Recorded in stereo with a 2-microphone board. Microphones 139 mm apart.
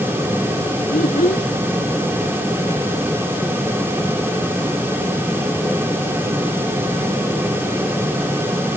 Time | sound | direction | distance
0.9 | a child speaking | 70° left (ahead or behind) | ?